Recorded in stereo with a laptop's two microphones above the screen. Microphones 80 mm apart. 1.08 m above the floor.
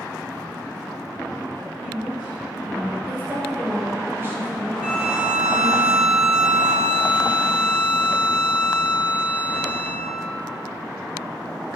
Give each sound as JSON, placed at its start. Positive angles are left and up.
{"t": 1.6, "sound": "a woman speaking", "side_deg": -5, "distance_m": 5.5}
{"t": 3.1, "sound": "a woman speaking", "side_deg": -30, "distance_m": 5.5}
{"t": 4.8, "sound": "a violin", "side_deg": -20, "distance_m": 1.7}